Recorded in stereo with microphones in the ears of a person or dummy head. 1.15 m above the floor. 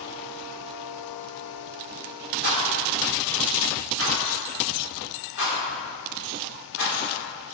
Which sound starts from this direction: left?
A rattle, at 2.4 s.